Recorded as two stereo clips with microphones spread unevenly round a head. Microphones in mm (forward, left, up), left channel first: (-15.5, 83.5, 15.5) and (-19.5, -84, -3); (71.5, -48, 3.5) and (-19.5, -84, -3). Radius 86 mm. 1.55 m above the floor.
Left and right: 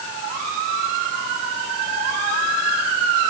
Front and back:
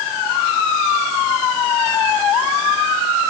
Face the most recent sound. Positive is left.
No sound to turn to.